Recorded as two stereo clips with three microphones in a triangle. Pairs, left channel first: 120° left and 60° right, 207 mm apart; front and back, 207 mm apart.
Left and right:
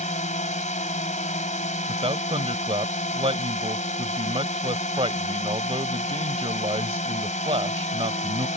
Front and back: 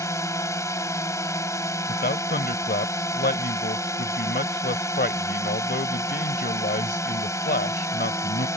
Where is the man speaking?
5° right.